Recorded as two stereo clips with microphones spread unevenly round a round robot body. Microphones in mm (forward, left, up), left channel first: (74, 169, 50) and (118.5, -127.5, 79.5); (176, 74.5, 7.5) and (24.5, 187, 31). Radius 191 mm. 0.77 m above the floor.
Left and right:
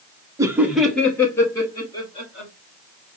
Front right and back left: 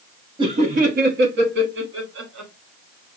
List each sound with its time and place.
0.4 s laughter: 160° right, 0.5 m; by 2.5 s 170° left, 1.4 m